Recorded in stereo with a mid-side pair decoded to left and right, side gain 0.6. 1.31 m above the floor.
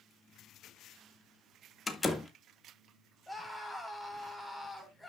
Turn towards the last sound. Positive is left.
turn(degrees=5)